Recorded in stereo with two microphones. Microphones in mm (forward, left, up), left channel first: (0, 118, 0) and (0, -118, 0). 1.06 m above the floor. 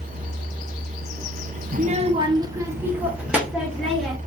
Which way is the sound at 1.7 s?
40° right (ahead or behind).